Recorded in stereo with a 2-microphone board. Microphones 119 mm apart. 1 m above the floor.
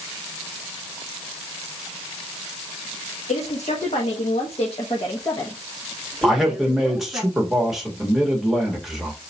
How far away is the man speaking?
About 1.4 m.